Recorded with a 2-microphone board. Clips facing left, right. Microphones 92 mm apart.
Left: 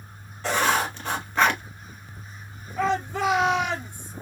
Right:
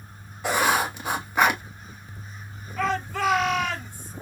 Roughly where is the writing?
Centre.